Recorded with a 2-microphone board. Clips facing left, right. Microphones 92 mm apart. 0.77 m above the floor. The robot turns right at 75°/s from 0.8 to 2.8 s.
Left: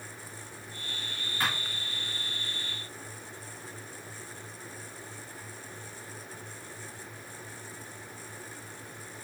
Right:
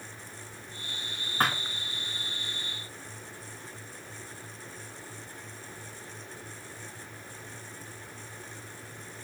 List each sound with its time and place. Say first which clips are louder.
1.4 s a thud: right 4 dB; 50° right (ahead or behind), 3 m; by 1.6 s 65° right (ahead or behind), 3 m